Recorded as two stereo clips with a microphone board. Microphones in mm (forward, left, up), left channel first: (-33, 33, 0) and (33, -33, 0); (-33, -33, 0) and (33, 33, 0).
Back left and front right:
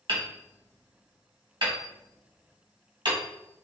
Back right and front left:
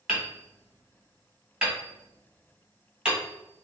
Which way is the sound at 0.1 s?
35° right.